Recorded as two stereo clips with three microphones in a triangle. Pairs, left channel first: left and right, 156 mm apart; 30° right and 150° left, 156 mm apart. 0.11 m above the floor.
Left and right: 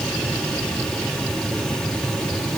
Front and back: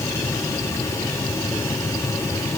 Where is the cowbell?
I don't hear a cowbell.